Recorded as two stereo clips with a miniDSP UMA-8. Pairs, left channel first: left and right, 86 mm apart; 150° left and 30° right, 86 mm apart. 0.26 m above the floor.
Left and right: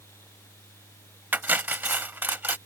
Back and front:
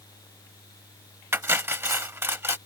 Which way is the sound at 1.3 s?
50° right.